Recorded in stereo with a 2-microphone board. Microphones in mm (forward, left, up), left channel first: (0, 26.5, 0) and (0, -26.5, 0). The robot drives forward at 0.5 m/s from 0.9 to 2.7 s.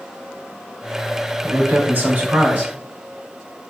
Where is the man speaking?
35° right (ahead or behind), 1.3 m; by 2.7 s 30° right (ahead or behind), 1.5 m.